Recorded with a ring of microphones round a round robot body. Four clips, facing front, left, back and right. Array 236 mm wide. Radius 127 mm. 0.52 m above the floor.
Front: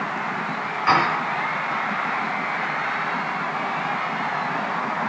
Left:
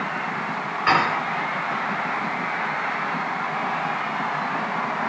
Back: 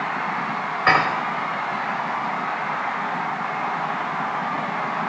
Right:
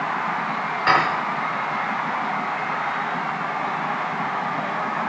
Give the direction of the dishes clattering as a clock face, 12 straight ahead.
6 o'clock.